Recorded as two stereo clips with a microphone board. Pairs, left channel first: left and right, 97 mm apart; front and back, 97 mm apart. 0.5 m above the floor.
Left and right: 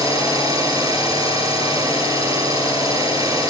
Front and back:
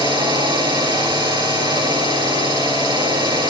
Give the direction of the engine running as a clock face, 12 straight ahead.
5 o'clock.